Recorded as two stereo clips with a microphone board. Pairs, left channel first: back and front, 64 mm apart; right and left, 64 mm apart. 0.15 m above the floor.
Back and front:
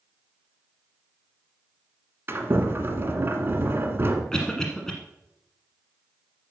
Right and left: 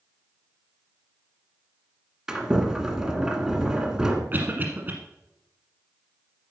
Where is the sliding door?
15° left, 1.7 m.